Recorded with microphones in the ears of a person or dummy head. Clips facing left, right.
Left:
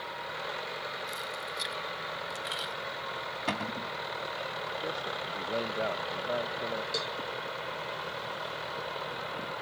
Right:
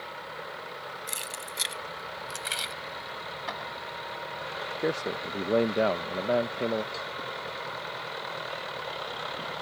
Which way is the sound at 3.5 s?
45° left (ahead or behind).